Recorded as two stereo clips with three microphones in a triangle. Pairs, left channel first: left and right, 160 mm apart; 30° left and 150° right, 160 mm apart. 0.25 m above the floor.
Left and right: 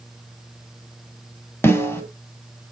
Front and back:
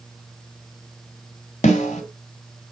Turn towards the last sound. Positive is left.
turn(degrees=20)